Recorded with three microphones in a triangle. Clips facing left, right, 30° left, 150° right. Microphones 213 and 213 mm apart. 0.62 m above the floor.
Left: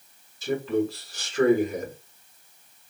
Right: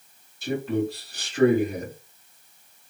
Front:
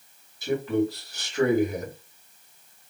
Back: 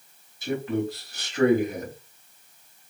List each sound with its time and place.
0.4 s a man speaking: 85° right, 1.8 m